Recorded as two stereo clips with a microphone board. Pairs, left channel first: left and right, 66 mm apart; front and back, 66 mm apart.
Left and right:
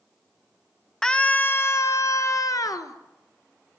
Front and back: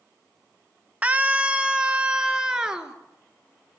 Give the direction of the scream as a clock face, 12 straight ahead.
7 o'clock.